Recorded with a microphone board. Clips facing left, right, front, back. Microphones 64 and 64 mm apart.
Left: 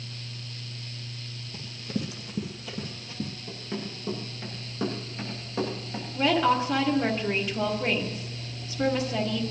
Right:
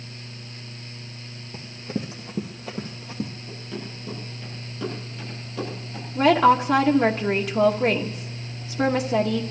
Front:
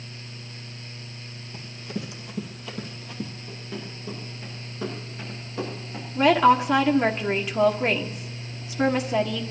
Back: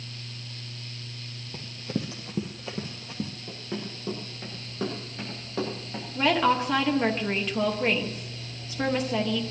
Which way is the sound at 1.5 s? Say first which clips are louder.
Right 2 dB, back 2 dB; 145° right.